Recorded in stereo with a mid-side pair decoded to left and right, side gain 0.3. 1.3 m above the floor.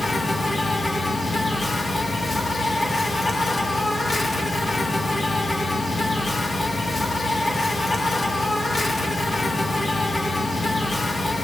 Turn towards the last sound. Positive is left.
turn(degrees=35)